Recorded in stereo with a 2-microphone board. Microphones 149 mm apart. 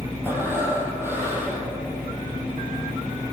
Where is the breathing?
15° right (ahead or behind), 4 m.